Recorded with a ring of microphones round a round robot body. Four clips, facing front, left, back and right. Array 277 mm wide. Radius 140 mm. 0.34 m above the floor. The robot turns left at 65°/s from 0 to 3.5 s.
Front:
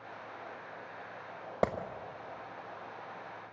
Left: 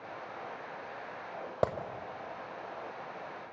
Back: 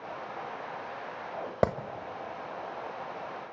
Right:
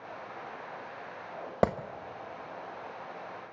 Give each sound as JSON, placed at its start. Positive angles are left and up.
{"t": 1.6, "sound": "a clap", "azimuth_deg": -140, "distance_m": 1.1}